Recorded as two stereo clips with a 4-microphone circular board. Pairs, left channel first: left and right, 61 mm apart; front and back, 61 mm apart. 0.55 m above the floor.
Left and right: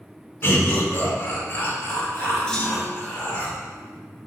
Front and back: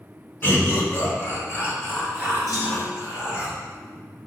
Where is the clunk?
10° left, 1.5 m.